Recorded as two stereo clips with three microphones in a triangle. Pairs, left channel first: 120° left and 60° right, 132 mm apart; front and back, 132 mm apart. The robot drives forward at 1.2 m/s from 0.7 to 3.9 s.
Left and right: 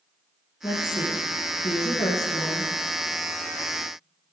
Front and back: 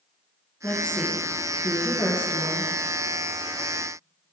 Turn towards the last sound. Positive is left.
turn(degrees=125)